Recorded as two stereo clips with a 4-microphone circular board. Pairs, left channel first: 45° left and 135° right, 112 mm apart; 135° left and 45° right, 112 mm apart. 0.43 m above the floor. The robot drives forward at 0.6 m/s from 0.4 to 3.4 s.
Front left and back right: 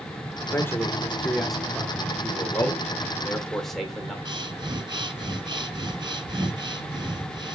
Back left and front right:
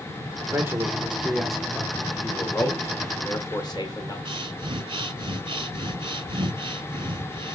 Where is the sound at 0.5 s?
Straight ahead, 1.1 m; by 2.1 s straight behind, 1.0 m.